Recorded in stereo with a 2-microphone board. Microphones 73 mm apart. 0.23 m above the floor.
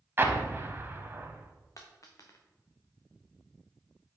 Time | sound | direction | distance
0.2 | an explosion | 35° right (ahead or behind) | 0.7 m
1.8 | a dropped coin | 50° left (ahead or behind) | 1.3 m